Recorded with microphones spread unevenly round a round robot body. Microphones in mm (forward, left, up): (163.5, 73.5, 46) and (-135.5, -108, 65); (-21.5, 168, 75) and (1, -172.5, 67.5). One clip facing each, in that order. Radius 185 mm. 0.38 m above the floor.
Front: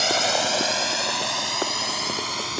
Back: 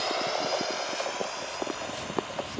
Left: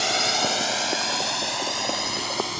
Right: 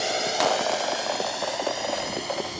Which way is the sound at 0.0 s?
30° left.